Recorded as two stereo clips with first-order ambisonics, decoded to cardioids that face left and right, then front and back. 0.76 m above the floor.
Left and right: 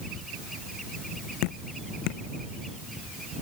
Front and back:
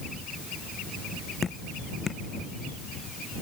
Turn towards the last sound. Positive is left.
turn(degrees=75)